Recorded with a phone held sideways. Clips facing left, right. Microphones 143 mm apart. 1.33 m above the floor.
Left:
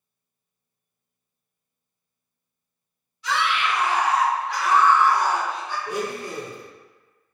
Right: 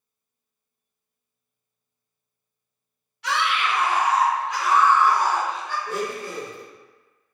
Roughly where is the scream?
Right.